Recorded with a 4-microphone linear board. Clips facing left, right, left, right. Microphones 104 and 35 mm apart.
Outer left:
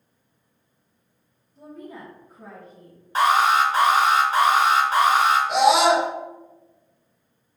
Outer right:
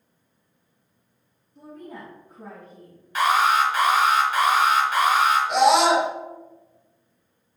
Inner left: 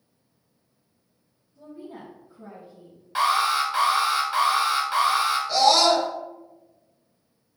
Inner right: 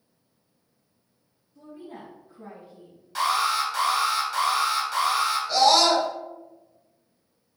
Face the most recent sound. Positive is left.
turn(degrees=0)  # may be behind; listen again after turning